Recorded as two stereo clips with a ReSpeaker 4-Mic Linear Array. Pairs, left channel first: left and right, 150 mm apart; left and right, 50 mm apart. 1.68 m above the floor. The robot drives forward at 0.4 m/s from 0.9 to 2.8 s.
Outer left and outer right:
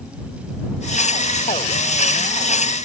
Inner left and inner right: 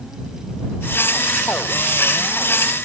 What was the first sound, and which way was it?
Only background noise.